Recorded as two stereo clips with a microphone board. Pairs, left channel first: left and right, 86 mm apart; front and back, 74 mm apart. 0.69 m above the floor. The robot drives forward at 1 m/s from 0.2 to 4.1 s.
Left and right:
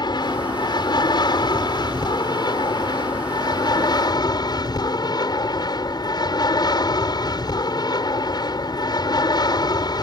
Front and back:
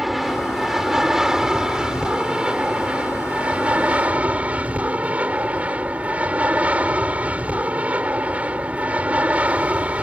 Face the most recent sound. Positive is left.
turn(degrees=110)